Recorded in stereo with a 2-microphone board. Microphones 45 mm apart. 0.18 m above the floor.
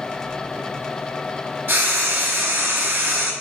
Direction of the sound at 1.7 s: 60° right (ahead or behind).